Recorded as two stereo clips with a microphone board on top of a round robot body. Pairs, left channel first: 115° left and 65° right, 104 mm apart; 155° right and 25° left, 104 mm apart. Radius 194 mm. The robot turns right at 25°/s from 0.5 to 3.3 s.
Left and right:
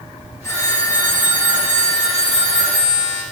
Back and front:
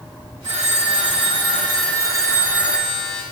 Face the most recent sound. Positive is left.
turn(degrees=115)